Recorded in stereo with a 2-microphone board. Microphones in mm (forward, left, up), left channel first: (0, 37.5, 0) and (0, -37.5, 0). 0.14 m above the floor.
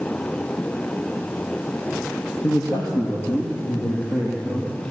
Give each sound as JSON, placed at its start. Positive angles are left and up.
{"t": 2.4, "sound": "a man speaking", "side_deg": 60, "distance_m": 4.0}